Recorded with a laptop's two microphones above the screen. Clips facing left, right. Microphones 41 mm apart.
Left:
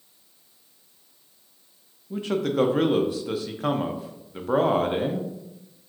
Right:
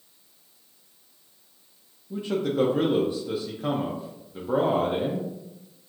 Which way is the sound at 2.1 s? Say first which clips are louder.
Left 1 dB; 70° left (ahead or behind).